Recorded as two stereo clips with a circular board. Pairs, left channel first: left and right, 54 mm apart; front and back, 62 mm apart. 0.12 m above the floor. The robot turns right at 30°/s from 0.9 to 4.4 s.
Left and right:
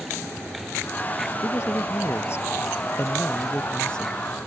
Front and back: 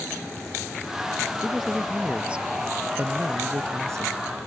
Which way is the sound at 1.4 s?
85° left.